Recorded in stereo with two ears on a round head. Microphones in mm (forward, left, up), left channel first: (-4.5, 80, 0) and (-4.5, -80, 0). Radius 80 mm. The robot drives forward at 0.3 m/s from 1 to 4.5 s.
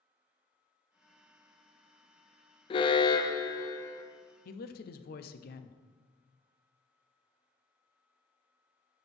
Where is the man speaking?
55° left (ahead or behind), 0.7 m.